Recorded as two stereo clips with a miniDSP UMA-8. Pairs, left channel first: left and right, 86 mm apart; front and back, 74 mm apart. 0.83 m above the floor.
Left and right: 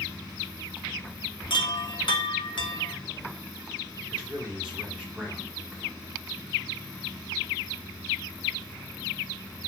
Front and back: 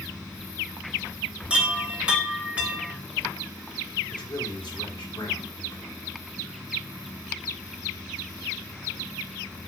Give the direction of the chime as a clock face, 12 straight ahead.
8 o'clock.